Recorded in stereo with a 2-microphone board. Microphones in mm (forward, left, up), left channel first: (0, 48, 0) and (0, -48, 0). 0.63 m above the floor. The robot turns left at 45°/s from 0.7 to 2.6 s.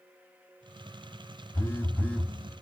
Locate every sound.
1.5 s a phone buzzing: 45° left, 1.4 m; by 2.4 s 10° left, 1.4 m